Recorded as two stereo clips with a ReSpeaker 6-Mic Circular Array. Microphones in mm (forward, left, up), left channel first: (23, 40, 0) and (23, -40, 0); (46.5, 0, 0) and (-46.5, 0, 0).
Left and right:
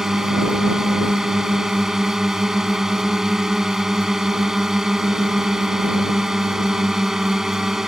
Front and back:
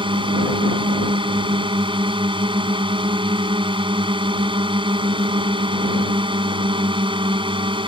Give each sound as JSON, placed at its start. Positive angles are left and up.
{"t": 0.0, "sound": "a drone", "azimuth_deg": -175}